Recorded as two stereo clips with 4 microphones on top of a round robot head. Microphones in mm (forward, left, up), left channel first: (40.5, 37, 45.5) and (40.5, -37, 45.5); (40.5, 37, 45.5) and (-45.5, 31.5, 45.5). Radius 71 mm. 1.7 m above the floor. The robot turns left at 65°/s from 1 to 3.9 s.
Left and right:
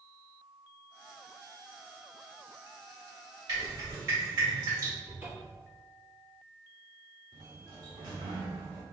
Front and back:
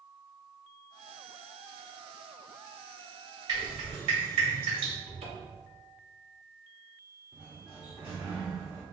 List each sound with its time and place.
3.5 s dripping: 125° right, 2.0 m; by 4.9 s 150° right, 2.0 m
5.0 s a cupboard door: 165° right, 1.1 m
7.3 s a sliding door: 95° right, 0.7 m